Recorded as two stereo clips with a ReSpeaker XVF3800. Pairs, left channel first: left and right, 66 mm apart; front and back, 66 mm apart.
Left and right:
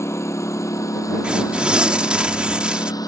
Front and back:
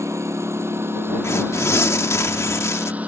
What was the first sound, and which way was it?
A lawn mower, 135° left.